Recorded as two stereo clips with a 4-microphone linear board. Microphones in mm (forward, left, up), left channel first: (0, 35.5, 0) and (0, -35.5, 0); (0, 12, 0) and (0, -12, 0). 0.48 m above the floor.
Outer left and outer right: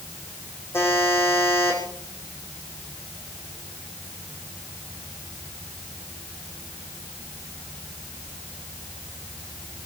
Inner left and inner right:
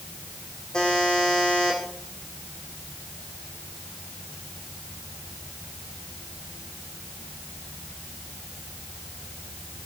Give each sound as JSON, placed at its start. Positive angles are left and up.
{"t": 0.7, "sound": "a buzzer", "side_deg": 40, "distance_m": 6.0}